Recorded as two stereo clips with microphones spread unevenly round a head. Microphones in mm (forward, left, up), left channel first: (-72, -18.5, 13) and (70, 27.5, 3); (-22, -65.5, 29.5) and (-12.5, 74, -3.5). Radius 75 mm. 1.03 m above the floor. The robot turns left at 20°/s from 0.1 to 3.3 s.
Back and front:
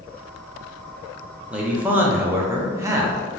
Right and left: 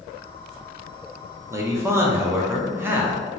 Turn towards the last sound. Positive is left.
turn(degrees=50)